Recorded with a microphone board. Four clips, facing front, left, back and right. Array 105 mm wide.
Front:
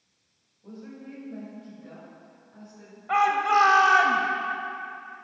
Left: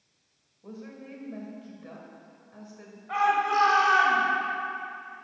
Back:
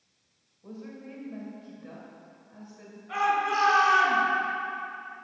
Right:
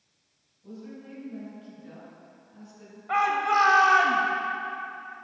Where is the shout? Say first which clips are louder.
Even, front 5 dB; 25° right, 1.7 m.